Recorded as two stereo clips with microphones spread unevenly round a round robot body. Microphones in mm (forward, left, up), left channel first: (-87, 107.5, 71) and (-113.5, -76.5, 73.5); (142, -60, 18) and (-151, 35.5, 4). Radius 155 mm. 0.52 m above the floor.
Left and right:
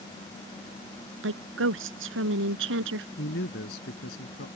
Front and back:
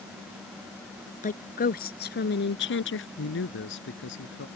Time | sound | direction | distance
1.2 | a woman speaking | 85° right | ?
3.2 | a man speaking | 35° left | ?